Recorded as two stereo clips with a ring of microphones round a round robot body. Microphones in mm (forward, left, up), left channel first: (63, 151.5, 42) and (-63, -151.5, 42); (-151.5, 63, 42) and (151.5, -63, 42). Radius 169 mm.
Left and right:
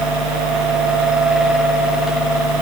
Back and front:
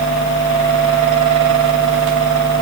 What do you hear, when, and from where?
Only background noise.